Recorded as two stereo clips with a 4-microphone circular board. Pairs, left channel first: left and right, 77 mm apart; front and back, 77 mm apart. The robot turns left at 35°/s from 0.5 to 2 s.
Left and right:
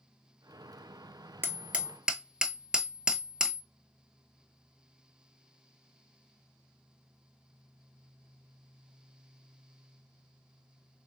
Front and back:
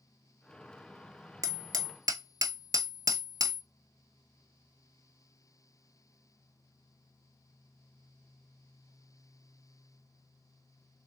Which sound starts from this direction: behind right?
Hammering, at 1.4 s.